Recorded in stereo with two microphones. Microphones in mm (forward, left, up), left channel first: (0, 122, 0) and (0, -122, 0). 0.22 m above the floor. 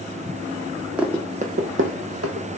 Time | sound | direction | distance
1.0 | running footsteps | 5° right (ahead or behind) | 0.5 m